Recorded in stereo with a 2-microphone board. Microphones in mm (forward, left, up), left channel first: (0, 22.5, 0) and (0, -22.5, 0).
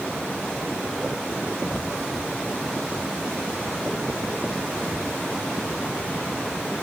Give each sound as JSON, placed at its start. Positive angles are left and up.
{"t": 1.7, "sound": "a whoosh", "side_deg": -25, "distance_m": 4.0}